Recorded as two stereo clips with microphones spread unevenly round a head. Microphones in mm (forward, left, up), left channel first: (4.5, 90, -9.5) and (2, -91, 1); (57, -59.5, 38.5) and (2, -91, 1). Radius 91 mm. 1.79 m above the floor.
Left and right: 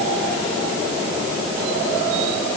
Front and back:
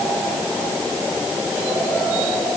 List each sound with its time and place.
Only background noise.